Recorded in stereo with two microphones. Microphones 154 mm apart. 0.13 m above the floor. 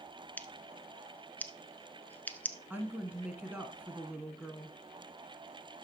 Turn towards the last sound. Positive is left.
turn(degrees=-10)  # may be behind; listen again after turning